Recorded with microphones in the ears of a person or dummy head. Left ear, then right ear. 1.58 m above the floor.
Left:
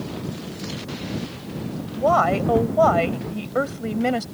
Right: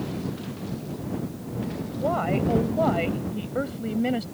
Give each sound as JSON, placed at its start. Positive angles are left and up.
{"t": 2.0, "sound": "a woman speaking", "side_deg": 45}